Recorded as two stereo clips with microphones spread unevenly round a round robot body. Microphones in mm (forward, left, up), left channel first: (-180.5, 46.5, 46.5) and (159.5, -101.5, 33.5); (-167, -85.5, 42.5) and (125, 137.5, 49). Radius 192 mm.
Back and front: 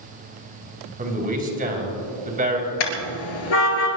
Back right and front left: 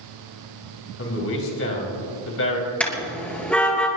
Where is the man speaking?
90° right, 3.5 m.